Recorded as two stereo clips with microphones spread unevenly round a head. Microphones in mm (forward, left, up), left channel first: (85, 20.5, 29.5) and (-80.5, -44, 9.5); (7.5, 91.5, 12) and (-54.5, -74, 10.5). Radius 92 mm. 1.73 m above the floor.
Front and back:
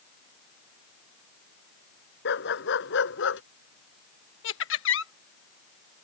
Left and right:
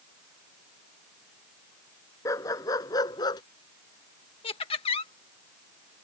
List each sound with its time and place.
2.2 s a dog barking: 5° right; by 3.4 s straight ahead
4.4 s laughter: 5° left